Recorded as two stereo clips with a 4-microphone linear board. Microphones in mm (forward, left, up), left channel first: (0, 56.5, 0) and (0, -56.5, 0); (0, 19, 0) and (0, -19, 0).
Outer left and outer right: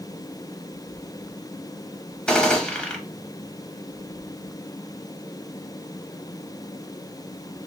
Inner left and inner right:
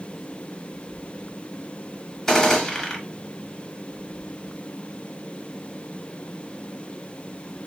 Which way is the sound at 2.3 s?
5° left (ahead or behind).